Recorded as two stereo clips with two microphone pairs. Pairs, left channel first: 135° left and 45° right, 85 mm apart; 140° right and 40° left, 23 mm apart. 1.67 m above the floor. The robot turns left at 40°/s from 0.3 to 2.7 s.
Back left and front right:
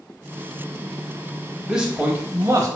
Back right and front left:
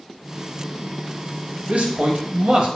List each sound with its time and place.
1.7 s a man speaking: 40° left, 0.8 m; by 2.7 s straight ahead, 0.8 m